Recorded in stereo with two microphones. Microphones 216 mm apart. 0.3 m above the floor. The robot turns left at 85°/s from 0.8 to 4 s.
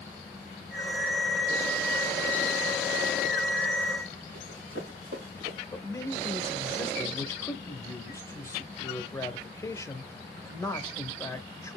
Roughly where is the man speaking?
Centre.